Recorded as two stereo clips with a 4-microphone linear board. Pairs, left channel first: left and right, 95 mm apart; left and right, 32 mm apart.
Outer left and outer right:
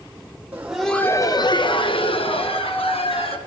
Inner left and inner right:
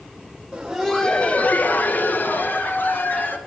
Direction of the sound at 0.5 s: 20° right (ahead or behind).